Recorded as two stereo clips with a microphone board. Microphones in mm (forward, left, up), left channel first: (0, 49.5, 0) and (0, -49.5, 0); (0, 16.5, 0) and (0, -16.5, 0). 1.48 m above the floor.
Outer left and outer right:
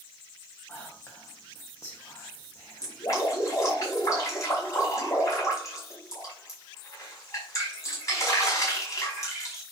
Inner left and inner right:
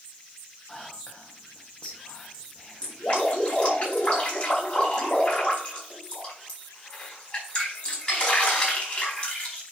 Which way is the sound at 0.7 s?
25° left (ahead or behind).